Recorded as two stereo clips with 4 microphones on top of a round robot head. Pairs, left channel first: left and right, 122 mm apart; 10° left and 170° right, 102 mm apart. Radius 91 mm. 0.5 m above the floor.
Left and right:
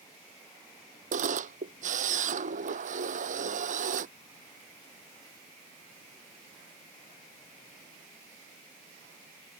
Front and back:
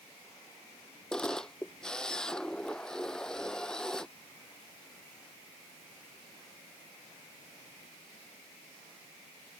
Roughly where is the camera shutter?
Right.